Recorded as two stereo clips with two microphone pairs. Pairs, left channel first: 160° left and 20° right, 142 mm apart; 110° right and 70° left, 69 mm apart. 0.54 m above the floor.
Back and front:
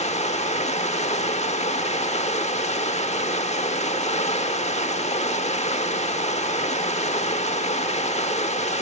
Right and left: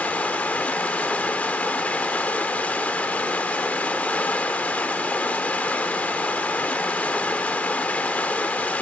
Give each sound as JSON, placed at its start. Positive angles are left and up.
{"t": 0.0, "sound": "running water", "azimuth_deg": -170, "distance_m": 0.9}